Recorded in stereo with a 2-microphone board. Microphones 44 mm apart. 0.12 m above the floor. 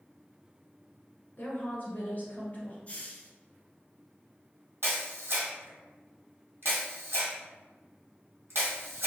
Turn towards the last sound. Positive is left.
turn(degrees=-55)  # may be behind; listen again after turning